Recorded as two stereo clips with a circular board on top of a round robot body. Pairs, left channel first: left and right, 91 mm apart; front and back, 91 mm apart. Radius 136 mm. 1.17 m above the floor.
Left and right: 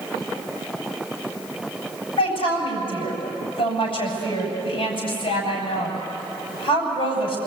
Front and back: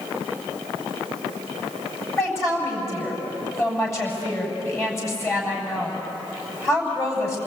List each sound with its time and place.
2.2 s a woman speaking: 60° left, 7.5 m